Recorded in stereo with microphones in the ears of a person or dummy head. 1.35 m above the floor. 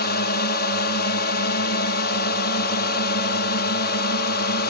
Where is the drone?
60° left (ahead or behind).